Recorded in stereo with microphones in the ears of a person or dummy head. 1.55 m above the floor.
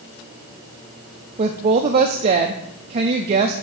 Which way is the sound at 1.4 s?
35° right (ahead or behind).